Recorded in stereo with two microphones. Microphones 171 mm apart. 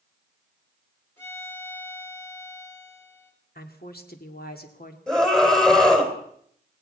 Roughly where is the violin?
Centre.